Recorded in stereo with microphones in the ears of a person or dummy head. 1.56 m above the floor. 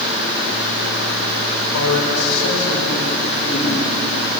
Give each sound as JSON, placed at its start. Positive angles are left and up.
{"t": 1.7, "sound": "a man speaking", "side_deg": 80, "distance_m": 5.5}